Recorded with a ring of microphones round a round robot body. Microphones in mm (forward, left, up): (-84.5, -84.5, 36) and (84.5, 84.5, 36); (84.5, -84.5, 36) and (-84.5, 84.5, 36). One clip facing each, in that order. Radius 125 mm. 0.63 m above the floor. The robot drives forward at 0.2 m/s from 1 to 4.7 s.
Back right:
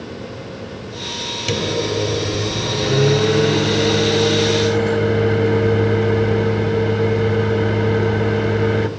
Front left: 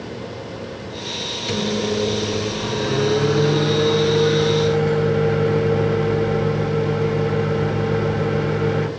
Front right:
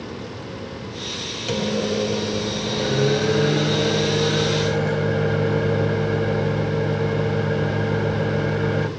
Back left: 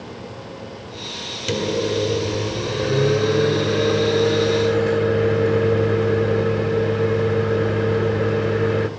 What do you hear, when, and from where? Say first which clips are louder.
1.5 s a microwave: back right 1 dB, back left 2 dB; 170° right, 1.0 m; by 8.9 s 175° right, 1.6 m